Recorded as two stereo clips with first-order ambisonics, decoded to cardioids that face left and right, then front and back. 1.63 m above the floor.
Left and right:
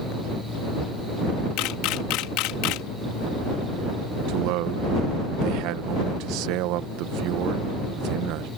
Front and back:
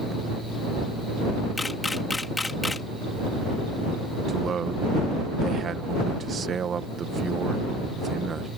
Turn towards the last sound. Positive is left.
turn(degrees=-115)